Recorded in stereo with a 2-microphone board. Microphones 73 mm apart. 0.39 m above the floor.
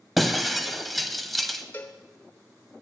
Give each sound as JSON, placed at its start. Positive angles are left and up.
{"t": 0.2, "sound": "breaking glass", "side_deg": 0, "distance_m": 0.8}
{"t": 1.7, "sound": "a cowbell", "side_deg": 30, "distance_m": 1.1}